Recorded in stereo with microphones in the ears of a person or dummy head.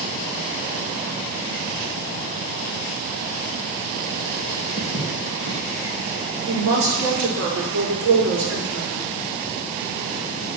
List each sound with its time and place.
4.8 s footsteps: 50° right (ahead or behind), 4.5 m
6.5 s a woman speaking: 75° right (ahead or behind), 4 m